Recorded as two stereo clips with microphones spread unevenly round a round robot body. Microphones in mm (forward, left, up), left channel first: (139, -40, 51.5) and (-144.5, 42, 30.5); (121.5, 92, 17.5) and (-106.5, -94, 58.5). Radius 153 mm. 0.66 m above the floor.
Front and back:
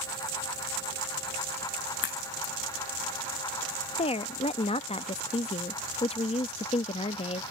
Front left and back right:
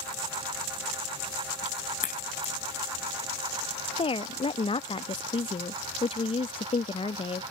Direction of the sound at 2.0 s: 25° right.